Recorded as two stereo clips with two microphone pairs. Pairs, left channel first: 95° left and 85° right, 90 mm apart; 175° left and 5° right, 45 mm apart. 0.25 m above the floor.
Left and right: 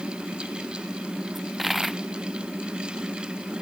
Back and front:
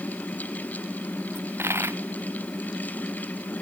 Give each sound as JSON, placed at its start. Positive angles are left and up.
{"t": 1.4, "sound": "a dropped coin", "azimuth_deg": 0}